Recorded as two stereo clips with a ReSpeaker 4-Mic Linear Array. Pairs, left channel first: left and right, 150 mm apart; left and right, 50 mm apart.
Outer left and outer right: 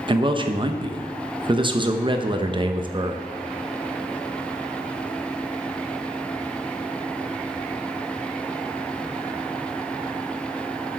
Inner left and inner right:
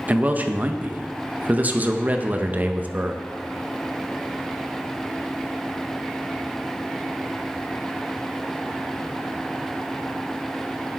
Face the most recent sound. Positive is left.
turn(degrees=-35)  # may be behind; listen again after turning